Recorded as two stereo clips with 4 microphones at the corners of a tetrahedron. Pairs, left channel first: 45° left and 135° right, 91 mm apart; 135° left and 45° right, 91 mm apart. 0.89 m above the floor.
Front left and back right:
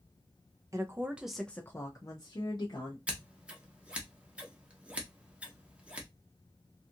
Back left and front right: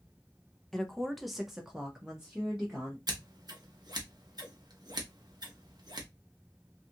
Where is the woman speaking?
145° right, 0.6 m; by 3.0 s 35° left, 1.0 m.